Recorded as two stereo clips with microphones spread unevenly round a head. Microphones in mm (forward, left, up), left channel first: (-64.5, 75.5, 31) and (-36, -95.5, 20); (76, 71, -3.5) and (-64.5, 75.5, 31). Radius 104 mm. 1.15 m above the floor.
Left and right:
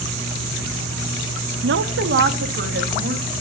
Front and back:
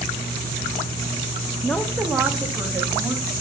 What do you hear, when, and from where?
1.6 s a woman speaking: 80° right, 0.6 m; by 3.2 s 100° right, 2.5 m